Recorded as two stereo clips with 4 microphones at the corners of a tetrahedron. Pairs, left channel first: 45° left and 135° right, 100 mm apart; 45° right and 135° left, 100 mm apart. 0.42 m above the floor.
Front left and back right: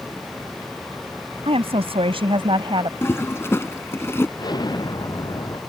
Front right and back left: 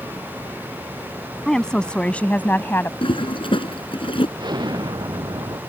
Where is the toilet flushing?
20° right.